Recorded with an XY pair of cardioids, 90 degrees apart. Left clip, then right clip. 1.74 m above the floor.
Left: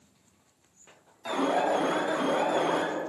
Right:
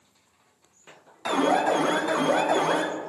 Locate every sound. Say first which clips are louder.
1.2 s an alarm: right 4 dB; 60° right, 0.9 m